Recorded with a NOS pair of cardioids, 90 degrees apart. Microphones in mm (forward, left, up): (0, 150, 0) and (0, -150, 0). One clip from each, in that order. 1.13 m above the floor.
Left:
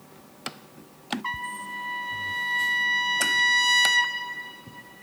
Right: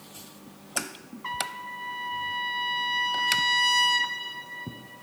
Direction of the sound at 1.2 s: 15° left.